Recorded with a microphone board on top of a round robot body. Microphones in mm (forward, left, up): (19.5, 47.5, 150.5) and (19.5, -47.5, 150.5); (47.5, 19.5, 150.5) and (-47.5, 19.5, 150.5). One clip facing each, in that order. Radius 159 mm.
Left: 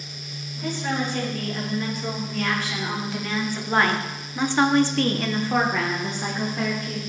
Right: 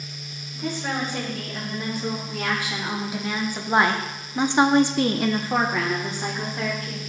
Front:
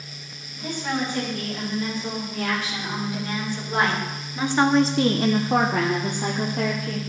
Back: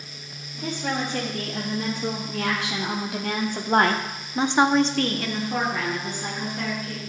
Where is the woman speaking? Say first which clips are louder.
Left 1 dB, front 1 dB; 170° right, 3 m; by 7.0 s straight ahead, 1.7 m.